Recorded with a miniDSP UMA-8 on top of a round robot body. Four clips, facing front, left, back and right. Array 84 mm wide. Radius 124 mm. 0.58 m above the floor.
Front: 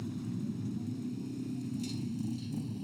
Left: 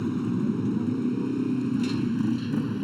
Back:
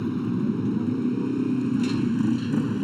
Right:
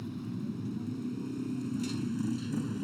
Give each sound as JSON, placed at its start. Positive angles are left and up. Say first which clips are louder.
{"t": 0.0, "sound": "a motorcycle", "louder": "left 12 dB, back 13 dB", "azimuth_deg": 140}